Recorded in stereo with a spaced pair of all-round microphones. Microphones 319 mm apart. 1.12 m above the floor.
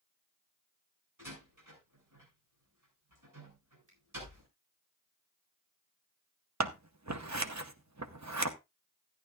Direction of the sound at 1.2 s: 75° right (ahead or behind).